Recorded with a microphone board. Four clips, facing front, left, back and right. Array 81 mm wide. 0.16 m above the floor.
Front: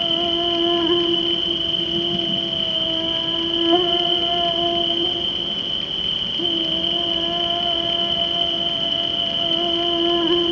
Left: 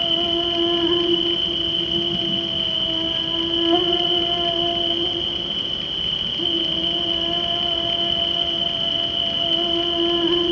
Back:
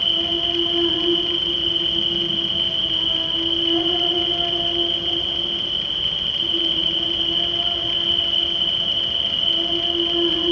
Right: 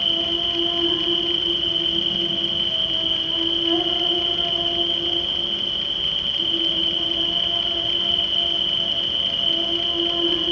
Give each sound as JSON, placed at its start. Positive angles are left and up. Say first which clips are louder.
{"t": 0.0, "sound": "an insect", "louder": "left 4 dB, front 4 dB", "azimuth_deg": 30, "distance_m": 3.5}